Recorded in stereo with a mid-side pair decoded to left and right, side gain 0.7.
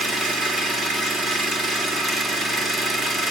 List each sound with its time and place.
0.0 s an engine running: 20° right, 4 m